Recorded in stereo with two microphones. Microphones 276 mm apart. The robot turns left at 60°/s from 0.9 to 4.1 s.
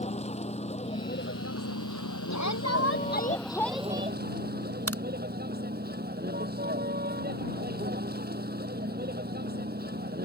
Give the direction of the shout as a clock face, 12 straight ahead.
9 o'clock.